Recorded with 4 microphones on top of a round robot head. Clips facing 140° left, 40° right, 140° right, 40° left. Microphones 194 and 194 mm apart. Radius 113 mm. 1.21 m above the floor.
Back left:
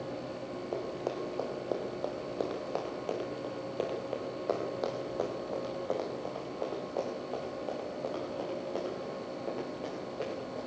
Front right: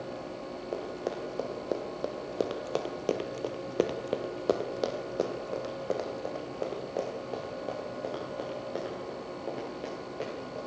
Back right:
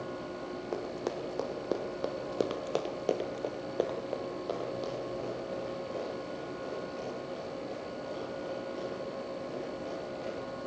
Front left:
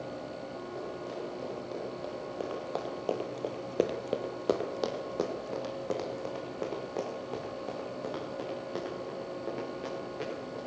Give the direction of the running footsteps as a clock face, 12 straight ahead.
4 o'clock.